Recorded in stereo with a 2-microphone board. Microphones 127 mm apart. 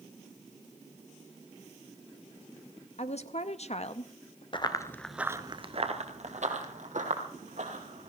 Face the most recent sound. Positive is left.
turn(degrees=-75)  # may be behind; listen again after turning